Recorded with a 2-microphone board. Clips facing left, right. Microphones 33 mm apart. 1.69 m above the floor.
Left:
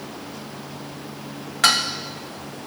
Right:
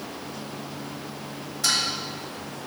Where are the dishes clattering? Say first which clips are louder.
Left 7 dB; 70° left (ahead or behind), 1.7 m.